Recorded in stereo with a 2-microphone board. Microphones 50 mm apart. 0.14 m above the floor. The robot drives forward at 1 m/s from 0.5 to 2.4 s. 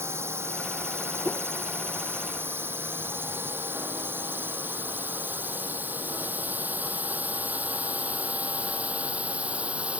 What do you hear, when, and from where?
0.0 s a drone: 60° right (ahead or behind); by 10.0 s 25° right (ahead or behind)
1.2 s a whoosh: 35° left (ahead or behind)